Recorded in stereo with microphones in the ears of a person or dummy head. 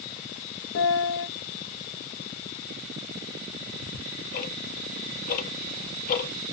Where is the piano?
55° left (ahead or behind), 0.6 m.